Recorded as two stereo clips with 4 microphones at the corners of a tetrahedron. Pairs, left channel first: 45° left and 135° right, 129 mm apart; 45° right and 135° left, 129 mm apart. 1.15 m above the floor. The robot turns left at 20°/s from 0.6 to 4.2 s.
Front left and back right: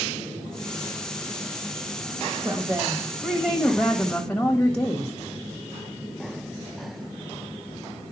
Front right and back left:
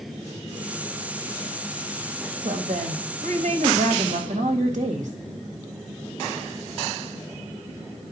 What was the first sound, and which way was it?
A woman speaking, 165° left.